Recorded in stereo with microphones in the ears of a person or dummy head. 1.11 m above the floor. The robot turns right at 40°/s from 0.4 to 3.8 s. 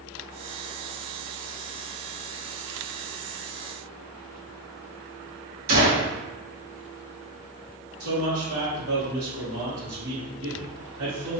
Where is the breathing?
No breathing in this recording.